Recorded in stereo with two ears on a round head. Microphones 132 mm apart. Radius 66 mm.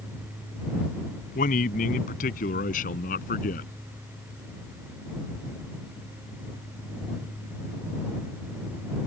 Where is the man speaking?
55° left (ahead or behind).